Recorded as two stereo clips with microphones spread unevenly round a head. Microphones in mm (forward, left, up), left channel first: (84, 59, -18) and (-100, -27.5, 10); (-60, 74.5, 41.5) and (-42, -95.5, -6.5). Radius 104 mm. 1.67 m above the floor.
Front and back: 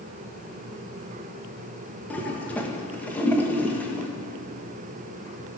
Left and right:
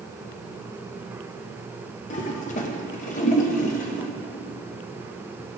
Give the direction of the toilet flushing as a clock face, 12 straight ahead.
8 o'clock.